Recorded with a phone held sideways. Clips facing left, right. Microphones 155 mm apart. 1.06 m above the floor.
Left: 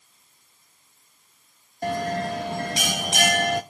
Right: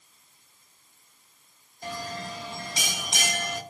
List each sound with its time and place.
1.8 s a bell: 65° left (ahead or behind), 0.6 m